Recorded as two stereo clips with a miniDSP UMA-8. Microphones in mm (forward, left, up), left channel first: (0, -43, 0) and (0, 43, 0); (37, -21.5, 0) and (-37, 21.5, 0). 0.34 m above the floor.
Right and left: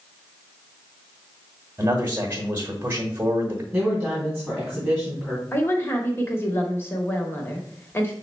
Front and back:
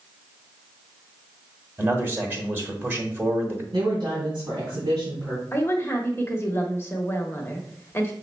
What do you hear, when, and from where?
1.8 s a man speaking: 105° left, 1.0 m
3.7 s a woman speaking: straight behind, 2.5 m
5.5 s a woman speaking: 55° right, 0.9 m